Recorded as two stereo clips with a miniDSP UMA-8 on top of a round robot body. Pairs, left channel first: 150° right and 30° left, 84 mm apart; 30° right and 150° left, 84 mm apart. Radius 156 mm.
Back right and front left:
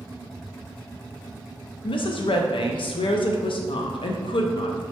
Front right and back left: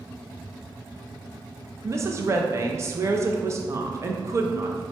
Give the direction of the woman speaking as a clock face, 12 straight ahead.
5 o'clock.